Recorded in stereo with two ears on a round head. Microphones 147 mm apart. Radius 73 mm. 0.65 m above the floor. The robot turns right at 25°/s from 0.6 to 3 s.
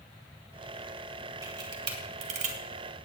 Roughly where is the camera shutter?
Right.